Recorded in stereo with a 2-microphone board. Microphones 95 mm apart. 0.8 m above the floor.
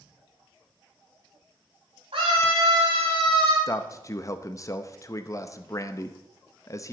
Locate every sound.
2.1 s a scream: 85° right, 5 m; by 3.6 s 80° right, 5 m
3.7 s a man speaking: 35° left (ahead or behind), 0.6 m